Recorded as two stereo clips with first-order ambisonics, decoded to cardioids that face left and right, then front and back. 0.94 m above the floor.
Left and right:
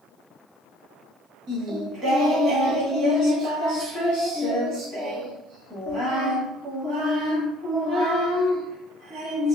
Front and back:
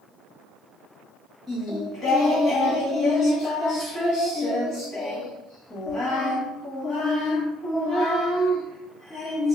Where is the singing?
50° right, 1.2 m.